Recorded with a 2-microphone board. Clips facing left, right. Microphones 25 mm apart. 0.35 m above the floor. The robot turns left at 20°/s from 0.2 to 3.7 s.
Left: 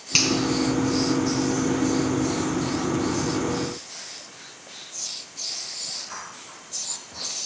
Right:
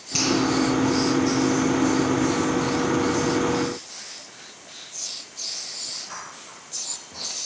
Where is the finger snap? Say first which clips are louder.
Left 2 dB; 50° left (ahead or behind), 3 m; by 0.3 s 55° left (ahead or behind), 3 m.